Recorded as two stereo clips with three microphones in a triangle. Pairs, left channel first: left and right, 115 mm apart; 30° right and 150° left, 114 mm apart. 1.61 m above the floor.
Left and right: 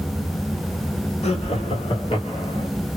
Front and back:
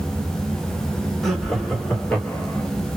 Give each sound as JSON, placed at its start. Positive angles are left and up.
{"t": 1.2, "sound": "laughter", "azimuth_deg": 60, "distance_m": 1.4}